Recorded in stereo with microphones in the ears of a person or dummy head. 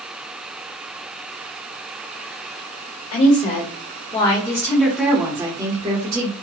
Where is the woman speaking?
45° left (ahead or behind), 1.3 m; by 6.3 s 40° right (ahead or behind), 1.1 m.